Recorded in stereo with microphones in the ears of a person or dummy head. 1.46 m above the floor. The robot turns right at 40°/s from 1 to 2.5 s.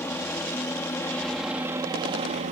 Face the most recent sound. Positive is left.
turn(degrees=-40)  # may be behind; listen again after turning